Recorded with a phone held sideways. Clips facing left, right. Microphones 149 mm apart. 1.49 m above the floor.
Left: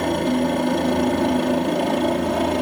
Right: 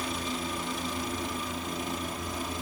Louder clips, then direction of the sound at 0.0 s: Left 15 dB; 65° left (ahead or behind).